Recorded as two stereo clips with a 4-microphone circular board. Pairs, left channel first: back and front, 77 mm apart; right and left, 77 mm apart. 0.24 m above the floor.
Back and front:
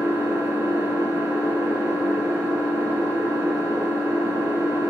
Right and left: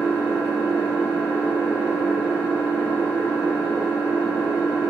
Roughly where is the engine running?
Ahead left.